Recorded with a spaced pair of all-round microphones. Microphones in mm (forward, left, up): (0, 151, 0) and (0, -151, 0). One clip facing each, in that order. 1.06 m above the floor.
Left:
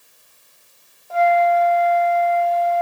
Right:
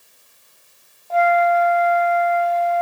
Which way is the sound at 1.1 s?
15° left (ahead or behind).